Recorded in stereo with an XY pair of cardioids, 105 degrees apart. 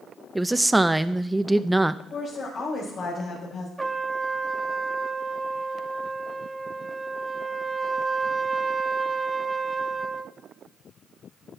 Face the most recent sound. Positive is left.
turn(degrees=-15)